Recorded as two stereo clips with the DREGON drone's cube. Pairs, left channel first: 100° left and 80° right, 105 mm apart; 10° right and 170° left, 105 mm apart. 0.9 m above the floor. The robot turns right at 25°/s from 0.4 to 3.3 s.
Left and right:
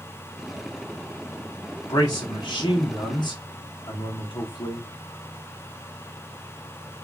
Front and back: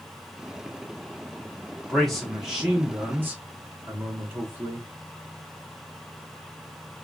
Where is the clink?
I don't hear a clink.